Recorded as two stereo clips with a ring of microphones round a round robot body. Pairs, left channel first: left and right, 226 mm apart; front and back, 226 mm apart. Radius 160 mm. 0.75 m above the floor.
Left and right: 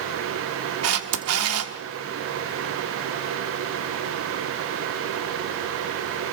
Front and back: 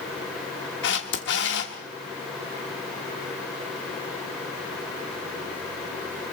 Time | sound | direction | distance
0.8 | a camera shutter | 55° right | 1.1 m